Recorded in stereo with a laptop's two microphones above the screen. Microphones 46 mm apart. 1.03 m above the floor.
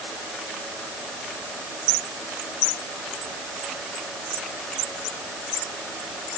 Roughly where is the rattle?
I don't hear a rattle.